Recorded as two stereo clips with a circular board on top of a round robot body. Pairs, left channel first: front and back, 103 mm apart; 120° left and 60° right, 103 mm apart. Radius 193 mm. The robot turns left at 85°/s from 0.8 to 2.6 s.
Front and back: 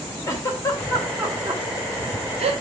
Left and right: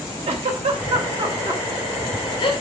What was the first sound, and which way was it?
A giggle, 60° right.